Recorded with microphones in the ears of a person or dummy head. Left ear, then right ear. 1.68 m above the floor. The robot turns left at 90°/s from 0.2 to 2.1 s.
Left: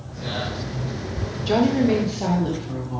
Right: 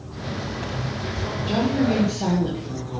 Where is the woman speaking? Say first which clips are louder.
Left 4 dB; 70° left, 1.1 m; by 3.0 s 10° left, 1.1 m.